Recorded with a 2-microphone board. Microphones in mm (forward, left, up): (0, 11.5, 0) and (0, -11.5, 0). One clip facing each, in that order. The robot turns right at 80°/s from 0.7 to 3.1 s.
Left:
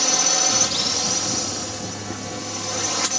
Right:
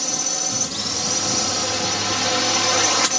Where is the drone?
150° left; by 3.2 s 20° right.